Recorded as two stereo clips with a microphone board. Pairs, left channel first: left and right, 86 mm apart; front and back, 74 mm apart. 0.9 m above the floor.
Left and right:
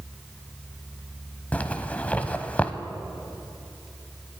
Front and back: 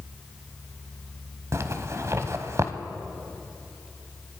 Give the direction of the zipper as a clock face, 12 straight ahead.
7 o'clock.